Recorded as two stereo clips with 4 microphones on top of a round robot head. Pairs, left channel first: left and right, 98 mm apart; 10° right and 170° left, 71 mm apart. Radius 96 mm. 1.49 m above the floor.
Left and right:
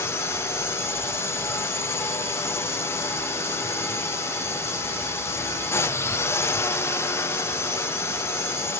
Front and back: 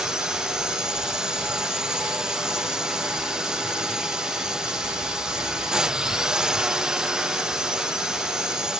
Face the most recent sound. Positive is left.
turn(degrees=100)